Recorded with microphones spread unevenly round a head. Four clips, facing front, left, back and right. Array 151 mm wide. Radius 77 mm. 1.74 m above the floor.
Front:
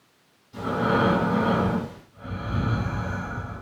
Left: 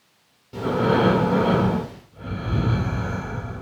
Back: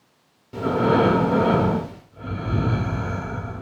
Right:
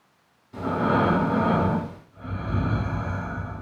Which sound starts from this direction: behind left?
Breathing, at 0.5 s.